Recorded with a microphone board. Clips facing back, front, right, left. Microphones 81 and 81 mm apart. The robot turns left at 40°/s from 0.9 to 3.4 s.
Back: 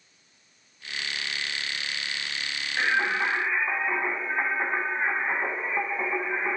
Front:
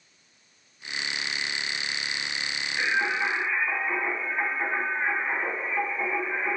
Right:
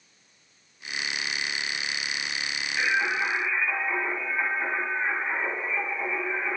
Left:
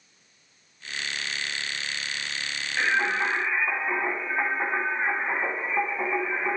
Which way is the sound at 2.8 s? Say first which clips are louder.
Back 1 dB, left 1 dB; 145° left.